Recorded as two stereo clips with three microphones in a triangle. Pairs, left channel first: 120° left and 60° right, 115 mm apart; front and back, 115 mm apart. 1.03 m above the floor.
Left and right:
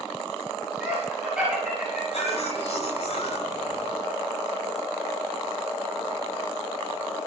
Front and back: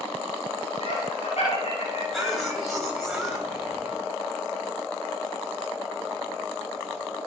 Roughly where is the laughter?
Ahead left.